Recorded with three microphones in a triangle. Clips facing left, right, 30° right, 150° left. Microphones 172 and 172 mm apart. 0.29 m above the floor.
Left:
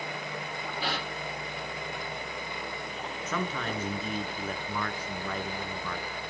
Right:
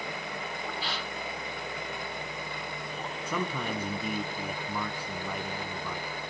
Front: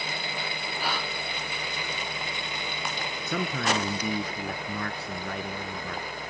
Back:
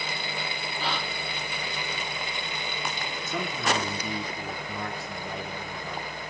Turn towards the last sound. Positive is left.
turn(degrees=-10)